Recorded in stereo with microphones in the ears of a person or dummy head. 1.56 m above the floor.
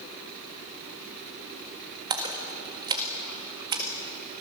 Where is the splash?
20° right (ahead or behind), 1.7 m.